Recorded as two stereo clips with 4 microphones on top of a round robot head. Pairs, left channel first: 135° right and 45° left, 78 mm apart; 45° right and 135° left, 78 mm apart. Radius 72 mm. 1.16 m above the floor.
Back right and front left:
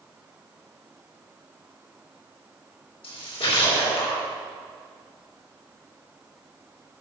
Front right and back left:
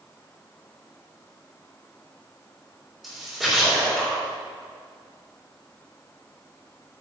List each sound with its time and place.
3.0 s a splash: 135° right, 3.5 m